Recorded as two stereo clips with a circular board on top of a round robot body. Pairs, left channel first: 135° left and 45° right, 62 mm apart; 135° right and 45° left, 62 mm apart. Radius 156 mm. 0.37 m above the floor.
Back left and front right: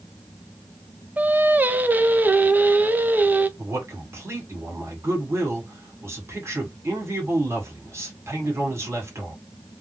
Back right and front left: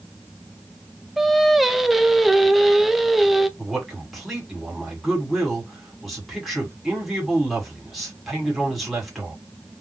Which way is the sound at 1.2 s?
40° right.